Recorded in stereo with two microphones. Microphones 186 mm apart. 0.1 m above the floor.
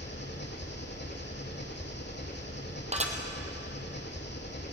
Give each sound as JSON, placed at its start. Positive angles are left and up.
{"t": 0.0, "sound": "an engine running", "side_deg": 70, "distance_m": 3.0}
{"t": 2.9, "sound": "dishes clattering", "side_deg": -35, "distance_m": 2.0}